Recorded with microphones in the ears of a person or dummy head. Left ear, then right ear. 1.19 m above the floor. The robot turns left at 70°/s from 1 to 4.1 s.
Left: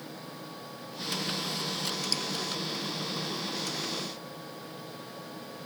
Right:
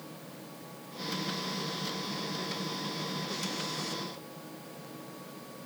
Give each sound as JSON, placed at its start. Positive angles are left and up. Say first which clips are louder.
{"t": 2.1, "sound": "dripping", "louder": "left 7 dB", "side_deg": 85}